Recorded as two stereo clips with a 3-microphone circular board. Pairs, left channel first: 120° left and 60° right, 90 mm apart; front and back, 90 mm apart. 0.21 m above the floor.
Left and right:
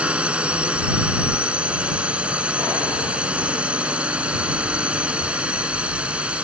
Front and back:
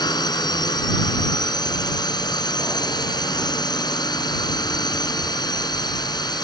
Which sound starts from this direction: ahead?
A drone, at 0.0 s.